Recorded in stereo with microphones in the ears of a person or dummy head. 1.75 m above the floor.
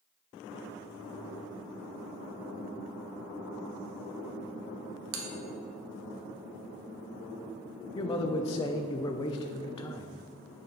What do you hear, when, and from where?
5.1 s a bell: 80° right, 1.2 m
8.0 s a man speaking: 25° left (ahead or behind), 0.5 m